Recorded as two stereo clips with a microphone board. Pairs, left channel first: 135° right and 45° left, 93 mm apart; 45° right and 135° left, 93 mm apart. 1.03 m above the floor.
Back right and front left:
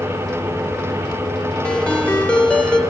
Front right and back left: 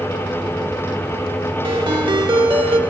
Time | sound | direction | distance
1.6 | a ringtone | 145° left | 1.9 m